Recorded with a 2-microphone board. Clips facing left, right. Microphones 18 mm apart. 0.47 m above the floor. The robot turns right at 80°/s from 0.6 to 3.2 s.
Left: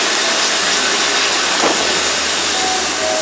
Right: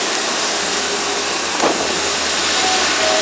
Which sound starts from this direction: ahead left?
Running water, at 0.0 s.